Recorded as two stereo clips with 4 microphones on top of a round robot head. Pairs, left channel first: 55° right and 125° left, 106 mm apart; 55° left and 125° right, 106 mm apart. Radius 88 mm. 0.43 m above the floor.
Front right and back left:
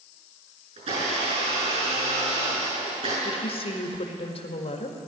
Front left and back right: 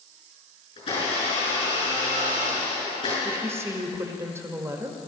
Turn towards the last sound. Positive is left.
turn(degrees=-60)